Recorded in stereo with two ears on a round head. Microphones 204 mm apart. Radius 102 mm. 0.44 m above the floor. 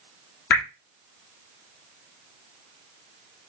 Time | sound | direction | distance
0.5 | dripping | 50° left (ahead or behind) | 1.2 m